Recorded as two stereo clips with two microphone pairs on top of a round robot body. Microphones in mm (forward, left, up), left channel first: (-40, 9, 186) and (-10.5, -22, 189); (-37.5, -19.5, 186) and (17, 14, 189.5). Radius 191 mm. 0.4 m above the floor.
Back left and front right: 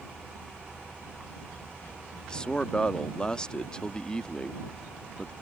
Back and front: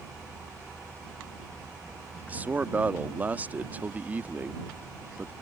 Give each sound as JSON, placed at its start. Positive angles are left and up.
{"t": 2.3, "sound": "a man speaking", "azimuth_deg": 85}